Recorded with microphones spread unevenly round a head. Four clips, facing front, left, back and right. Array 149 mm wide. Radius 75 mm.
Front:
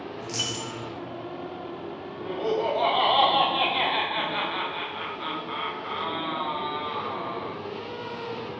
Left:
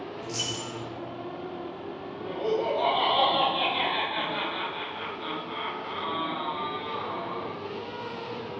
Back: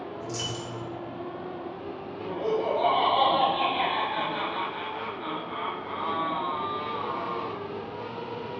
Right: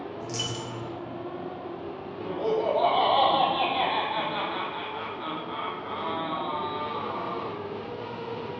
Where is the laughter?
45° right, 0.8 m.